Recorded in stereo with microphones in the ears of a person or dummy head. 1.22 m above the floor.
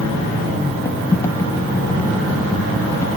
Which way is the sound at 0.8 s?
20° left (ahead or behind).